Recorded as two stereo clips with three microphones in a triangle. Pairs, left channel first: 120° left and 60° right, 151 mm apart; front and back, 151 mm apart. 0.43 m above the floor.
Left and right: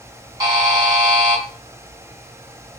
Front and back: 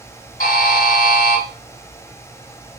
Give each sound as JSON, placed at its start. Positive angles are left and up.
{"t": 0.4, "sound": "a buzzer", "azimuth_deg": 5, "distance_m": 1.6}